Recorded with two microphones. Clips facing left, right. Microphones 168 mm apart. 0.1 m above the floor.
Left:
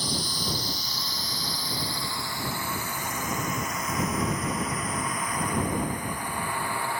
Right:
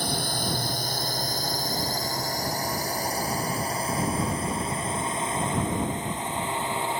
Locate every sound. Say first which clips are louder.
0.0 s a drone: right 3 dB; 65° right (ahead or behind); by 7.0 s 20° right (ahead or behind)